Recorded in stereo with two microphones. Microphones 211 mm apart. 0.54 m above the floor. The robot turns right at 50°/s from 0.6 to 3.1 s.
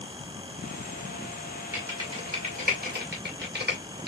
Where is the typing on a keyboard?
10° right (ahead or behind), 2.0 m; by 4.1 s 55° right (ahead or behind), 2.0 m.